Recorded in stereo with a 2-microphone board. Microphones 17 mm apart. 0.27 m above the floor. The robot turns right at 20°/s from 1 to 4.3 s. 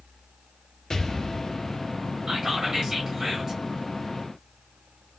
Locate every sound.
0.9 s an explosion: 30° left (ahead or behind), 0.6 m
2.3 s whispering: 45° right (ahead or behind), 1.2 m; by 3.6 s 35° right (ahead or behind), 1.2 m